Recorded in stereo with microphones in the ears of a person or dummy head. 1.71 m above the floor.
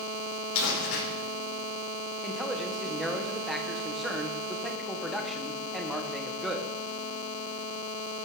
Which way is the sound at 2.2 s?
5° right (ahead or behind).